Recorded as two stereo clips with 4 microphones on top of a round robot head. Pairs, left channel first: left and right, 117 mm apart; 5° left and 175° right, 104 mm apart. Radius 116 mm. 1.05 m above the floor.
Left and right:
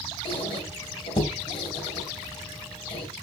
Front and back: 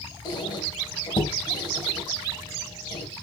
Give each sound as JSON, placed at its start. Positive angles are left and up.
{"t": 0.2, "sound": "a squeak", "azimuth_deg": 50, "distance_m": 4.0}